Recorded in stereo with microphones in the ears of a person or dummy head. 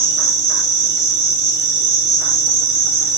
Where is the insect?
75° right (ahead or behind), 4 m.